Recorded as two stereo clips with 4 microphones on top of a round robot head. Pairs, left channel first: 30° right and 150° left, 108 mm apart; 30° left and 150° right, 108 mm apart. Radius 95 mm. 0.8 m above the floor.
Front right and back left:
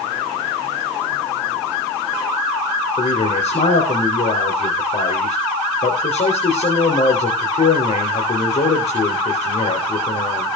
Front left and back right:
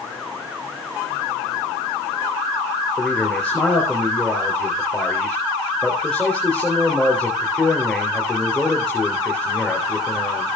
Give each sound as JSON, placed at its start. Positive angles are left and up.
{"t": 3.0, "sound": "a man speaking", "azimuth_deg": -45, "distance_m": 4.0}